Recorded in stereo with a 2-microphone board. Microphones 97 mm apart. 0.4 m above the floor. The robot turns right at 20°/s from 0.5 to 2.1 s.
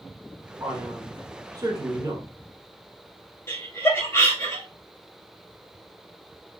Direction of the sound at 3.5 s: 25° left (ahead or behind).